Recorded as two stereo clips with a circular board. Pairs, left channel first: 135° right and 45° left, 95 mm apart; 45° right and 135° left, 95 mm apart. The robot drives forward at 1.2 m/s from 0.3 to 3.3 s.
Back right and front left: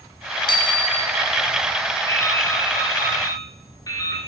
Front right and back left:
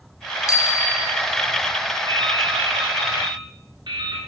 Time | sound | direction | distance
0.5 | a bicycle bell | 100° right | 2.5 m
2.1 | dripping | 165° left | 2.5 m